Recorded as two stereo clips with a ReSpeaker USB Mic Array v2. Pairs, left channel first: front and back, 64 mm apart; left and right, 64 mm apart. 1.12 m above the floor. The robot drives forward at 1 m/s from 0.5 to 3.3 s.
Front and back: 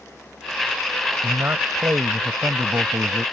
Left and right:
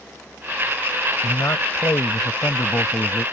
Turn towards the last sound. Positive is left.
turn(degrees=140)